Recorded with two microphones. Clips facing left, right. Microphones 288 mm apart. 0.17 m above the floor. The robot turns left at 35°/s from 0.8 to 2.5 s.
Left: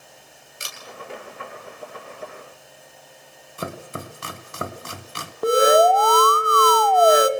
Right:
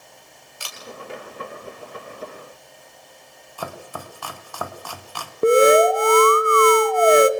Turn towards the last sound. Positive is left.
turn(degrees=-30)  # may be behind; listen again after turning